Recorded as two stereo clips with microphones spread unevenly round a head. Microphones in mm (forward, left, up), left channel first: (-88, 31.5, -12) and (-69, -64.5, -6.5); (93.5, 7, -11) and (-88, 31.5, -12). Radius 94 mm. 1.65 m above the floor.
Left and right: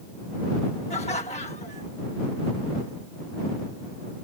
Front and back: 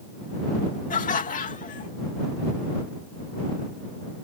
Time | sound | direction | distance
0.9 | laughter | 45° left | ?